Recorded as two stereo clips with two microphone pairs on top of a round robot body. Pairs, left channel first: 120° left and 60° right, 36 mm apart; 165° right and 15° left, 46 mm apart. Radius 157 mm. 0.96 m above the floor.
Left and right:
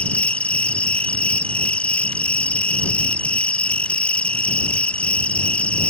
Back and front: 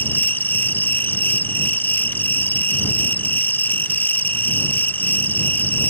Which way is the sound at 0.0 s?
165° left.